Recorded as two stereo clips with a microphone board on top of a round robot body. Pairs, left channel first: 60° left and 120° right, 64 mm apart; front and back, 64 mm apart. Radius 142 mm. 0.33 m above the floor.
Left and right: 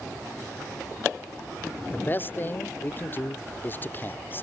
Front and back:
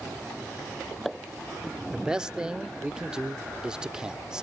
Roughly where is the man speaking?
Left.